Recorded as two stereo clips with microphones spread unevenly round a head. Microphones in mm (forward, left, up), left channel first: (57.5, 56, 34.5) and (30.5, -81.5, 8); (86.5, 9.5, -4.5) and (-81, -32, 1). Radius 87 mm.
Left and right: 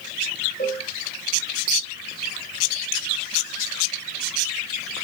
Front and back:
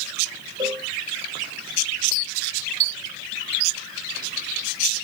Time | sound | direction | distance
0.6 | a cowbell | 125° left | 5.5 m